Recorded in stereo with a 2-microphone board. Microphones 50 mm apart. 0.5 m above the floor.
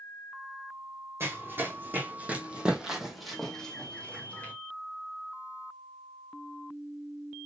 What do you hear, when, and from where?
1.2 s running footsteps: 55° right (ahead or behind), 1.6 m; by 4.5 s 30° left (ahead or behind), 1.6 m